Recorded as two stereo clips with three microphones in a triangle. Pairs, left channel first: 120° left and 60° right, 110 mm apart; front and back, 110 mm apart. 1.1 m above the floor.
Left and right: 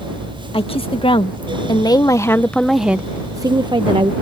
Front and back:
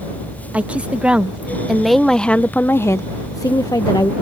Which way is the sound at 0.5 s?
105° left.